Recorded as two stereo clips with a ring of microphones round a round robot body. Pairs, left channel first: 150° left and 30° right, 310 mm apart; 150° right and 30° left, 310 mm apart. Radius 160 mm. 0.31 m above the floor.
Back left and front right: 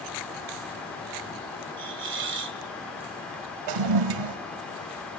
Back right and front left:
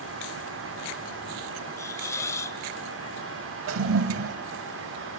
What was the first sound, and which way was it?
A hiss, 70° right.